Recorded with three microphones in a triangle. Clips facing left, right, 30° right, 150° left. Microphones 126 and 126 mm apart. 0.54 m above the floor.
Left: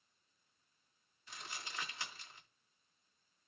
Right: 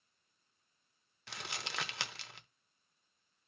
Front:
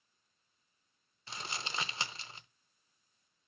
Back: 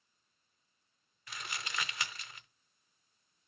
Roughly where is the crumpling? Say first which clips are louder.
Right 5 dB, front 2 dB; right.